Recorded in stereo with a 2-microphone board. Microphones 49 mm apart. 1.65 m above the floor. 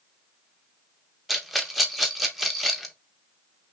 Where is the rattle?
5° right (ahead or behind), 0.9 m.